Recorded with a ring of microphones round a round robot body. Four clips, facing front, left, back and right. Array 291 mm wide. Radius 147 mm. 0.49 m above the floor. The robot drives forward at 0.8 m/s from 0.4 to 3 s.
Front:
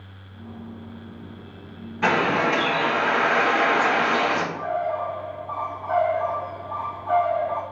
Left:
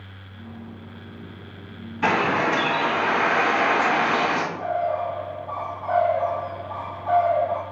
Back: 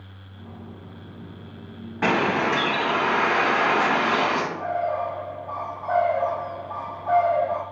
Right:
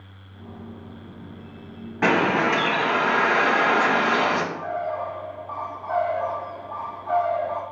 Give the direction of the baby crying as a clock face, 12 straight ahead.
I don't hear a baby crying.